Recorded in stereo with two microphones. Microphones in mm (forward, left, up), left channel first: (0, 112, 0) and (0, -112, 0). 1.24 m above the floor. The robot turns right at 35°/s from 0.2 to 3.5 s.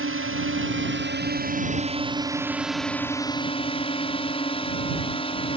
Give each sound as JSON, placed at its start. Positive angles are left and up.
{"t": 0.0, "sound": "a drone", "azimuth_deg": -90}